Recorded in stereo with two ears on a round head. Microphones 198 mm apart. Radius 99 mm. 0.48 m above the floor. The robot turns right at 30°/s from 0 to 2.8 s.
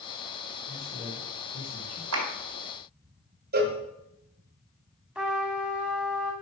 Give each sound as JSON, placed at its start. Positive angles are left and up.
{"t": 0.7, "sound": "a man speaking", "azimuth_deg": 5, "distance_m": 2.5}
{"t": 2.1, "sound": "a clap", "side_deg": -70, "distance_m": 2.5}
{"t": 3.5, "sound": "a cowbell", "side_deg": -45, "distance_m": 1.3}
{"t": 5.2, "sound": "a trumpet", "side_deg": -5, "distance_m": 1.5}